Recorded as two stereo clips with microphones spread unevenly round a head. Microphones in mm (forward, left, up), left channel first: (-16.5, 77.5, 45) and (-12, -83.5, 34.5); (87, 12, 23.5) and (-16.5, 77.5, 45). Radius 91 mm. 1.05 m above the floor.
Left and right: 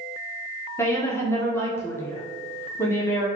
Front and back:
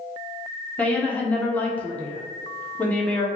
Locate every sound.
0.8 s a woman speaking: 20° left, 0.6 m